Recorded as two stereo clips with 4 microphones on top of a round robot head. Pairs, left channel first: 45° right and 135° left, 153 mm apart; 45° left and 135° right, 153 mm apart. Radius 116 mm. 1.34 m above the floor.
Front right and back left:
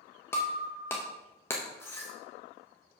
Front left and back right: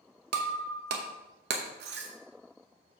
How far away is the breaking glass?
About 0.8 m.